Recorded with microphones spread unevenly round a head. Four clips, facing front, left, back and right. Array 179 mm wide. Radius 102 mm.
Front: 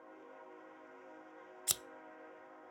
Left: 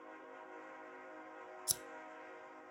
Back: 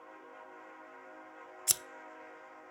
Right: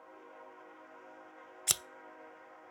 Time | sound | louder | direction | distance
1.7 | scissors | right 6 dB, back 2 dB | 100° right | 0.6 m